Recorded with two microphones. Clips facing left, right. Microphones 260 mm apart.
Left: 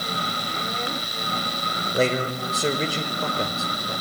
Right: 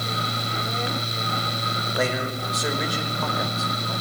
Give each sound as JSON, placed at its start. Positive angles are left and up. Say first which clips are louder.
{"t": 1.9, "sound": "a man speaking", "louder": "left 4 dB", "side_deg": 30, "distance_m": 3.0}